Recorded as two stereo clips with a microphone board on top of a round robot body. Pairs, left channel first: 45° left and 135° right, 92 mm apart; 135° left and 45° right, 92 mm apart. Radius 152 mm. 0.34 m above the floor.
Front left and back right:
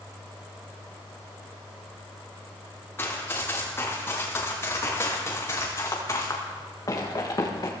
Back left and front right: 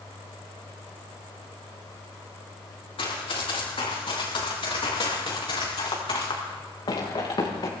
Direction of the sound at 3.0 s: 115° left.